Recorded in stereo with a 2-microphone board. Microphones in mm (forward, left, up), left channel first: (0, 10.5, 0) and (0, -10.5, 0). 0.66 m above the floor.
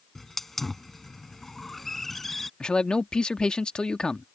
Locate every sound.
0.1 s a hiss: 10° left (ahead or behind)
2.6 s a man speaking: 45° left (ahead or behind)